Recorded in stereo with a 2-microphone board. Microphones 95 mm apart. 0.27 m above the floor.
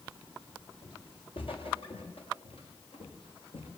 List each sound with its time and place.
0.8 s footsteps: 65° left (ahead or behind), 7 m; by 3.7 s 80° left, 7 m